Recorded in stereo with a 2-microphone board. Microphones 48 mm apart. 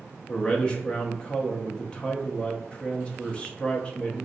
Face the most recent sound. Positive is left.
turn(degrees=20)  # may be behind; listen again after turning